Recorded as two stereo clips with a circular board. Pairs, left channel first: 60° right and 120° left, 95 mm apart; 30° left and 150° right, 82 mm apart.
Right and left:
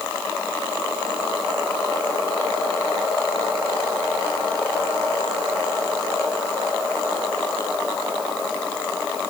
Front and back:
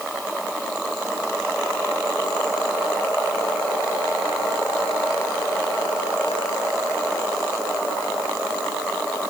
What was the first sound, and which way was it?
Only background noise.